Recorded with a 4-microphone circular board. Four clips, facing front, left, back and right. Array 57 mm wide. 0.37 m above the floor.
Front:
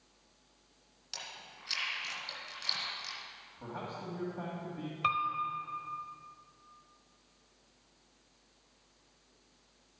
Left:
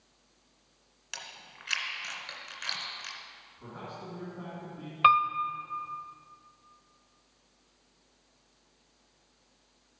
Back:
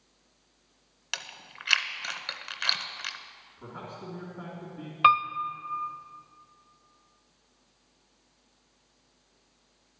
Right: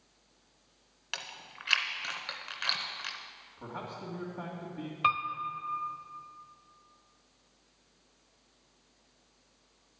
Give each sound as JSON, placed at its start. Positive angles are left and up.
{"t": 1.1, "sound": "chewing", "azimuth_deg": -155, "distance_m": 0.8}
{"t": 3.6, "sound": "a man speaking", "azimuth_deg": -55, "distance_m": 2.0}
{"t": 5.0, "sound": "a piano", "azimuth_deg": 150, "distance_m": 0.6}